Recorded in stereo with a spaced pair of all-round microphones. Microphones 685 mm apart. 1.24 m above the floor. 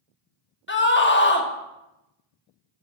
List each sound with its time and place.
0.7 s a scream: 15° left (ahead or behind), 1.2 m